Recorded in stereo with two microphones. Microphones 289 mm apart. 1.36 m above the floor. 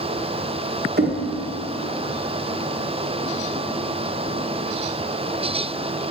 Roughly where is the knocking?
Right.